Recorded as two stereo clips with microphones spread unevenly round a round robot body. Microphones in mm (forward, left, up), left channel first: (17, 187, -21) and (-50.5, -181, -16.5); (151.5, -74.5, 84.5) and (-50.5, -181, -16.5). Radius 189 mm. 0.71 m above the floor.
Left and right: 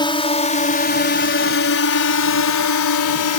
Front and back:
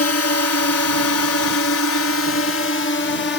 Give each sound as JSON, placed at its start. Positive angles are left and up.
{"t": 0.0, "sound": "a drone", "azimuth_deg": 5}